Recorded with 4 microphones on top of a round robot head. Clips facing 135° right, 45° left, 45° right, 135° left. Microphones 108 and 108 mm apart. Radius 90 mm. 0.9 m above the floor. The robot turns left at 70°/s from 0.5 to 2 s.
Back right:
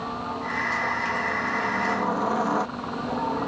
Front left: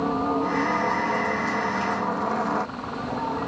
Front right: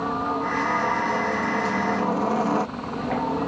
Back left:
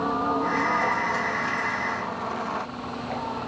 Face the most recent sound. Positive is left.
turn(degrees=-55)